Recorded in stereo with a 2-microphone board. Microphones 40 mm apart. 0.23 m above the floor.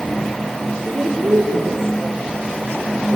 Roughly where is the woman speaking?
Right.